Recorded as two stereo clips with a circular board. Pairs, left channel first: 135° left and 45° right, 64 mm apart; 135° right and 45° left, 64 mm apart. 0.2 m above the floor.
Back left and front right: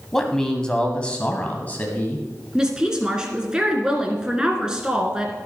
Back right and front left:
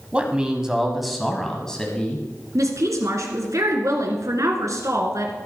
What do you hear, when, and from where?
0.1 s a man speaking: 65° left, 1.3 m; by 2.2 s 170° left, 1.5 m
2.5 s a woman speaking: 30° left, 2 m